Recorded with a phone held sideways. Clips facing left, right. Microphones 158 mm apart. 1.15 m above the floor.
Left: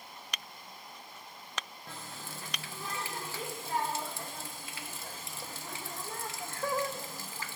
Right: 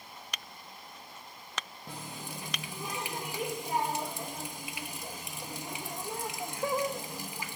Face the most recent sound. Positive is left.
turn(degrees=-15)  # may be behind; listen again after turning